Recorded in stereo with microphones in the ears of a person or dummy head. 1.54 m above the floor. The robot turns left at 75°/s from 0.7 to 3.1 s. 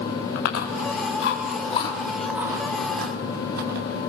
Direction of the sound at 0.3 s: 60° left (ahead or behind).